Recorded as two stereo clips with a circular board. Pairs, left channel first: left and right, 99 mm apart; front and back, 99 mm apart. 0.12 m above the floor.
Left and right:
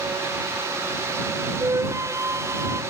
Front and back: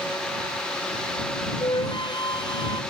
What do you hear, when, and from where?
1.6 s a flute: 35° right